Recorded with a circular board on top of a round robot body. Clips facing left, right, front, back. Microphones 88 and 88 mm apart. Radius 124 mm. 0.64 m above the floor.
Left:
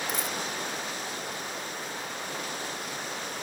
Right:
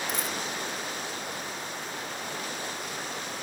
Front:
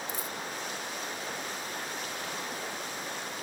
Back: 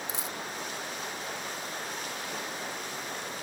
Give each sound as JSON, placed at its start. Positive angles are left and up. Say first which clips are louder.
{"t": 0.1, "sound": "a dropped coin", "louder": "even, even", "azimuth_deg": 180}